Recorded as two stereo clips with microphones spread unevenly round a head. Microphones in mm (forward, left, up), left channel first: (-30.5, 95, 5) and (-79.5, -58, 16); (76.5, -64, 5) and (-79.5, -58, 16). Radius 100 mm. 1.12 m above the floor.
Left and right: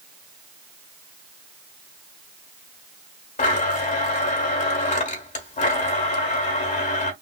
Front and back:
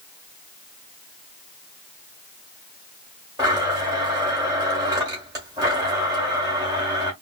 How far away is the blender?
About 1.3 m.